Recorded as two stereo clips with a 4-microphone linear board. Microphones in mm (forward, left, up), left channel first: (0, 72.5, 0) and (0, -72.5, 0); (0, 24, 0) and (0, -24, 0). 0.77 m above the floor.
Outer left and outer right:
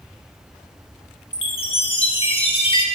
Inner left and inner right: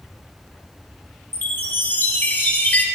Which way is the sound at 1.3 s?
40° left (ahead or behind).